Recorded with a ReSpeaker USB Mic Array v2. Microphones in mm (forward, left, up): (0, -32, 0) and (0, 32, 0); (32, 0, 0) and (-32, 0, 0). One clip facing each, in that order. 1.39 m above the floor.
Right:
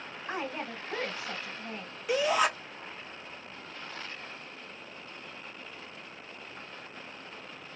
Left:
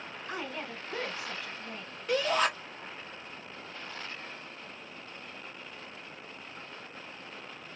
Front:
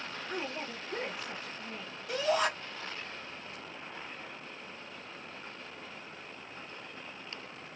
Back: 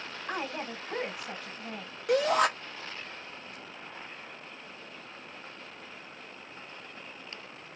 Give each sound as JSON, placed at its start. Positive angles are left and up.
{"t": 0.3, "sound": "a woman speaking", "azimuth_deg": -150, "distance_m": 1.3}
{"t": 2.1, "sound": "a shout", "azimuth_deg": -170, "distance_m": 0.8}